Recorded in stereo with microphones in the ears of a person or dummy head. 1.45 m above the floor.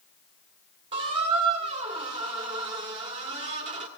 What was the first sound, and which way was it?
A squeak, 35° right (ahead or behind).